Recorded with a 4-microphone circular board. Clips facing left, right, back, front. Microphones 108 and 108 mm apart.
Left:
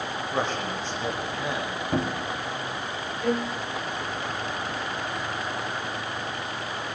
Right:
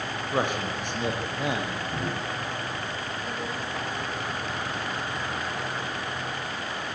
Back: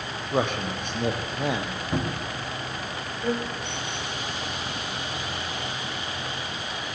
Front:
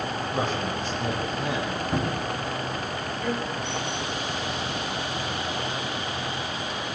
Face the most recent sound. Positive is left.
turn(degrees=115)